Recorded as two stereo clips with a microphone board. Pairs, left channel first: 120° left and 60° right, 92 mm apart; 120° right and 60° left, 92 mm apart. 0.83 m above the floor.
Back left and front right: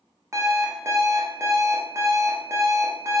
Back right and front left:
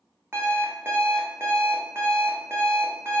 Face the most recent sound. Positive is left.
turn(degrees=-5)